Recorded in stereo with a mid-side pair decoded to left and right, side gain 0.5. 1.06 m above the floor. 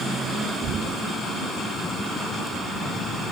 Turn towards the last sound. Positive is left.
turn(degrees=-45)